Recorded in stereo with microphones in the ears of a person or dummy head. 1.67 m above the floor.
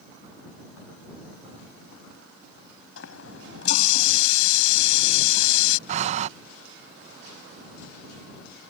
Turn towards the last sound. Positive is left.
turn(degrees=-40)  # may be behind; listen again after turning